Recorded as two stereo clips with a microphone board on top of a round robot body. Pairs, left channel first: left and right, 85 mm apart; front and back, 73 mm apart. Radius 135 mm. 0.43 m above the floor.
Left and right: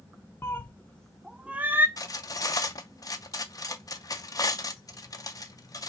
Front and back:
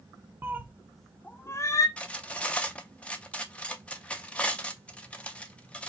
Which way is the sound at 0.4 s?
140° left.